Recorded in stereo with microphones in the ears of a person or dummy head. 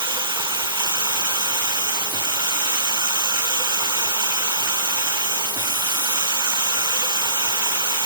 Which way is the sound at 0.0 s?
20° right (ahead or behind).